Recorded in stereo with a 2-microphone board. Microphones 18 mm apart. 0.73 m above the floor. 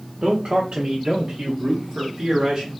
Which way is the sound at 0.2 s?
60° right (ahead or behind).